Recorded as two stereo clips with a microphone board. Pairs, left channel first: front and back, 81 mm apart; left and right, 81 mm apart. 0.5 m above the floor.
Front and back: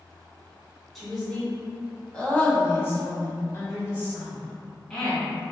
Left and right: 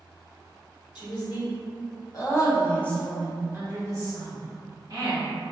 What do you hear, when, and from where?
0.9 s a woman speaking: 85° left, 1.9 m; by 5.3 s 65° right, 2 m